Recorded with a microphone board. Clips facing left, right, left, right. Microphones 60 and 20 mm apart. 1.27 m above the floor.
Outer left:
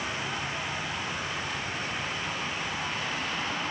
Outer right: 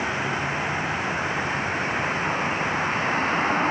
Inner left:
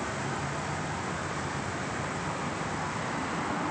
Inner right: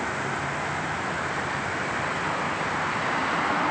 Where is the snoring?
No snoring in this recording.